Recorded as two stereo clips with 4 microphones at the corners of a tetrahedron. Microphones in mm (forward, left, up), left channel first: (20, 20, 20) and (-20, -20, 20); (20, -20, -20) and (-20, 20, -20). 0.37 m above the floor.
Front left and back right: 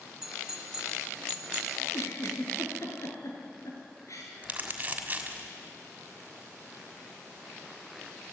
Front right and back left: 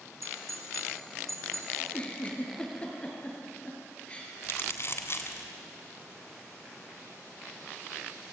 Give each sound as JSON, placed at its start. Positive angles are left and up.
{"t": 0.2, "sound": "a doorbell", "azimuth_deg": 145, "distance_m": 3.0}
{"t": 1.8, "sound": "a giggle", "azimuth_deg": 20, "distance_m": 5.5}
{"t": 4.4, "sound": "crumpling", "azimuth_deg": -75, "distance_m": 3.0}